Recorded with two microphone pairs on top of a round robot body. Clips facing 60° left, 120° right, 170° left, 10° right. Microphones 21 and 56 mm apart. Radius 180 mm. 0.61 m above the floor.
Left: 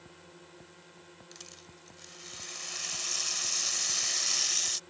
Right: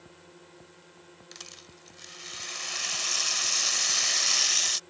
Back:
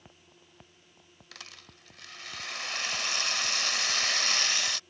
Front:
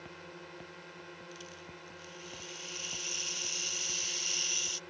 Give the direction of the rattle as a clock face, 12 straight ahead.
6 o'clock.